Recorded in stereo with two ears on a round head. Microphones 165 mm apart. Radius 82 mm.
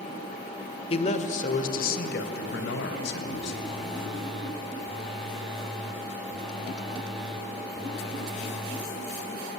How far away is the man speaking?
About 1.6 m.